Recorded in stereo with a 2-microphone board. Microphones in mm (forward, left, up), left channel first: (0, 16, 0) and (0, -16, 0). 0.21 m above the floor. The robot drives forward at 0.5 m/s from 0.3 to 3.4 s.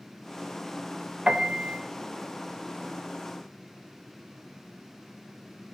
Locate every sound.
1.3 s a piano: 30° right (ahead or behind), 0.8 m; by 1.8 s 25° right (ahead or behind), 0.8 m